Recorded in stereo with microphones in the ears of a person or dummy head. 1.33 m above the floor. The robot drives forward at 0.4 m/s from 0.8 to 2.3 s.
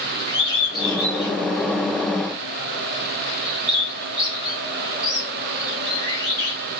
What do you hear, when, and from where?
0.3 s a bird: 20° left (ahead or behind), 1.4 m; by 6.6 s 15° left (ahead or behind), 2 m